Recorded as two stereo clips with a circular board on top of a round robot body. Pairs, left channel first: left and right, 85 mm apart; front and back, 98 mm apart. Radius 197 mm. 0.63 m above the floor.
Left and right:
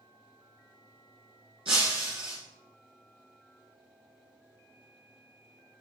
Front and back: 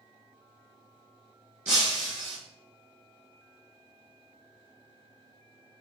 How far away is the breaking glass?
About 0.6 m.